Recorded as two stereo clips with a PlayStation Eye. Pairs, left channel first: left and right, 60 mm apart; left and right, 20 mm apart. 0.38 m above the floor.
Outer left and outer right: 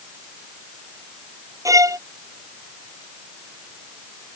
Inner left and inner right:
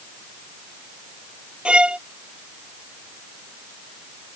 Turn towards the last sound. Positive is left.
turn(degrees=-70)  # may be behind; listen again after turning